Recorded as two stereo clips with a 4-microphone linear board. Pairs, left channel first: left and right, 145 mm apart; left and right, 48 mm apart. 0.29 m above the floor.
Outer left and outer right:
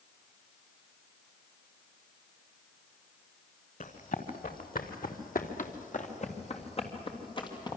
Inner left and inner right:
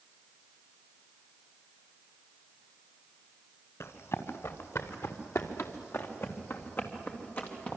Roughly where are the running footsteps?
Left.